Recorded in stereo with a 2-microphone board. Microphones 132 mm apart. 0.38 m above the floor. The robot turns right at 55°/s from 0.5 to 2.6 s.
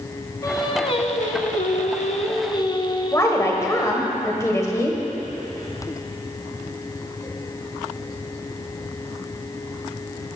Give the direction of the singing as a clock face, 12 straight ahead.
11 o'clock.